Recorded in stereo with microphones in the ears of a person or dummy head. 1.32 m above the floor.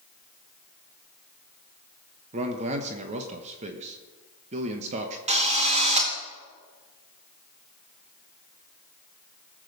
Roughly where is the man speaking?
Right.